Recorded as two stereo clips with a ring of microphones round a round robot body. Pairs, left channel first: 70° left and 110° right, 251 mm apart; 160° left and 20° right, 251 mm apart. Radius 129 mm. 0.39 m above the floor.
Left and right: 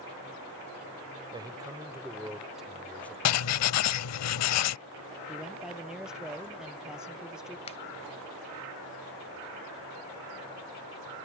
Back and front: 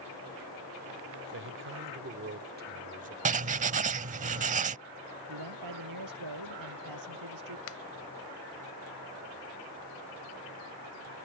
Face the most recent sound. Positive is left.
turn(degrees=130)